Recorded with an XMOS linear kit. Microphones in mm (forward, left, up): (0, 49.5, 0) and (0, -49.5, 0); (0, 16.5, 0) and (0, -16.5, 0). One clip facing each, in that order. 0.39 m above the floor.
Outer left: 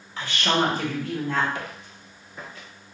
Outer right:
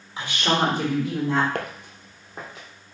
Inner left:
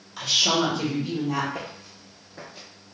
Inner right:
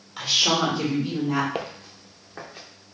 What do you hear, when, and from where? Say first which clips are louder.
0.2 s a woman speaking: outer right 1 dB, inner right 1 dB; 15° right (ahead or behind), 1.3 m
1.6 s footsteps: outer right 4 dB, inner right 4 dB; 60° right (ahead or behind), 0.8 m; by 2.7 s 50° right (ahead or behind), 2.5 m